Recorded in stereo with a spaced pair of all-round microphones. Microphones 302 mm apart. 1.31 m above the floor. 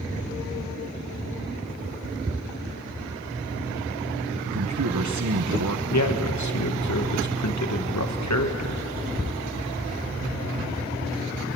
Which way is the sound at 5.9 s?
65° left (ahead or behind).